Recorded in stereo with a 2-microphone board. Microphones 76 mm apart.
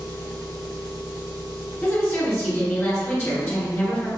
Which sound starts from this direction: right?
An engine running, at 0.0 s.